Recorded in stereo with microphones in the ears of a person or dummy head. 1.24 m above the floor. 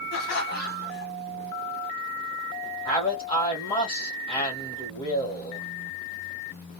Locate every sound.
0.1 s laughter: 60° left (ahead or behind), 1.0 m
2.9 s a man speaking: 30° left (ahead or behind), 1.2 m